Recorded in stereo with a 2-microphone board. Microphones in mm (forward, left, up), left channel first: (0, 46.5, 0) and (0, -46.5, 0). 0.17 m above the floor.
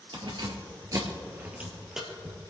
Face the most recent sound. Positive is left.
turn(degrees=5)  # may be behind; listen again after turning